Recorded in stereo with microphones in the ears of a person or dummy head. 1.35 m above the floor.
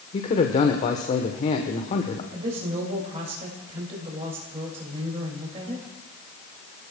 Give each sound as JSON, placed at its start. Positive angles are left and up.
{"t": 0.1, "sound": "a man speaking", "side_deg": 35, "distance_m": 1.0}
{"t": 2.3, "sound": "a woman speaking", "side_deg": -35, "distance_m": 2.0}